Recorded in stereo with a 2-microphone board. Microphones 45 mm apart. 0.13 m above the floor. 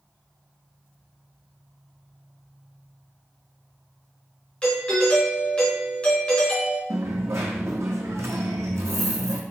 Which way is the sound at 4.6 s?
25° left (ahead or behind).